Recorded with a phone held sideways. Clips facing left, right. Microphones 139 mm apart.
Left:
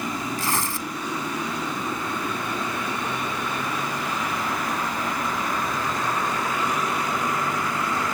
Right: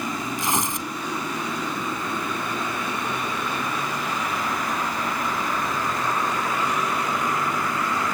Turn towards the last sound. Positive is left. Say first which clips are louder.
# right 1 dB
turn(degrees=-20)  # may be behind; listen again after turning